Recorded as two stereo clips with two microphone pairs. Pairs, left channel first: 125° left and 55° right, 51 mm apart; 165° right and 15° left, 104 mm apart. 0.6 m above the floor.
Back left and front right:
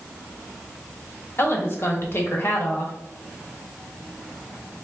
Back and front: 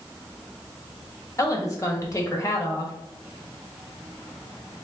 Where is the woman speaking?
145° left, 1.0 m.